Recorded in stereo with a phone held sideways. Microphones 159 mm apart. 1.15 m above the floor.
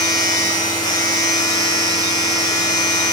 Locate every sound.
0.0 s a machine running: 25° left (ahead or behind), 2.5 m